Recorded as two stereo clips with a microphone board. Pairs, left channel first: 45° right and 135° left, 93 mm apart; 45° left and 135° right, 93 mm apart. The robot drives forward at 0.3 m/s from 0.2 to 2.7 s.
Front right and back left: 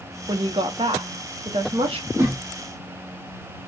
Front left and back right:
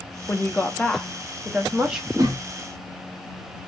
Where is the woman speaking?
110° left, 0.6 m; by 2.1 s 145° left, 0.9 m.